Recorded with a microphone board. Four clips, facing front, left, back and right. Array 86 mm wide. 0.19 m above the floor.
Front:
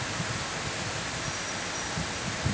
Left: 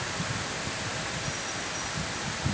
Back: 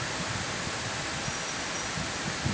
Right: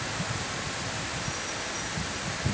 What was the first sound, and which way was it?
Only background noise.